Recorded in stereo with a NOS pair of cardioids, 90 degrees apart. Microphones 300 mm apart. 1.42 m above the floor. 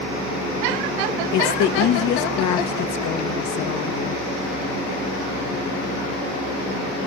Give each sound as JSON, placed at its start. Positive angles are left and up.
{"t": 1.3, "sound": "a woman speaking", "azimuth_deg": 70, "distance_m": 1.4}